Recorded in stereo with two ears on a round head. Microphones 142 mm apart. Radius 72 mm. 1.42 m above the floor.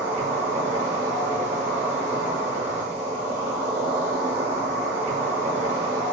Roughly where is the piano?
I don't hear a piano.